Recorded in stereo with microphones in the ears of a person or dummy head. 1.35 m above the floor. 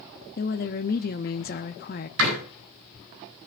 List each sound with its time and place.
0.4 s a woman speaking: 40° left (ahead or behind), 0.7 m
2.2 s a door slam: 75° right (ahead or behind), 9.5 m